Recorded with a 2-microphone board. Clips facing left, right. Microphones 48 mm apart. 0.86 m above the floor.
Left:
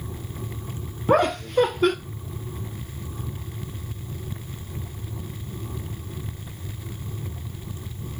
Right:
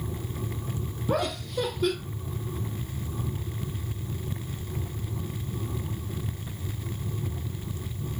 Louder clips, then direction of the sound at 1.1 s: Left 9 dB; 50° left (ahead or behind).